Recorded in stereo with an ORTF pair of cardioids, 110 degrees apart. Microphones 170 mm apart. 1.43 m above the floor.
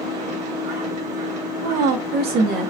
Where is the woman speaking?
70° right, 1.0 m.